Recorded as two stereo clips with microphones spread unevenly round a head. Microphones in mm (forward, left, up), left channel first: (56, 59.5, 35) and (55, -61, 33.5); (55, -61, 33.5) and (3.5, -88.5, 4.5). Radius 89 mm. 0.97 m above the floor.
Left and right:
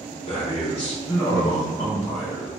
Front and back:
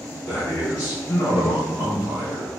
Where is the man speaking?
90° left, 0.8 m; by 2.5 s 10° left, 1.3 m.